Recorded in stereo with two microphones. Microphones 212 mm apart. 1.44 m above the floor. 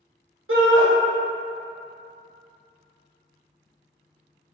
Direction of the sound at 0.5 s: 70° right (ahead or behind).